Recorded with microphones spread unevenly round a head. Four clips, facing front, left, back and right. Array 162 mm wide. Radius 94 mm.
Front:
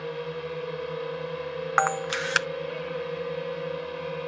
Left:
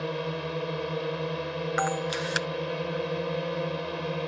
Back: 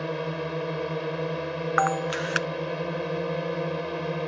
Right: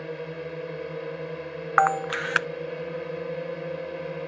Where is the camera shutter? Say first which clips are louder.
Right 9 dB, even; 75° right.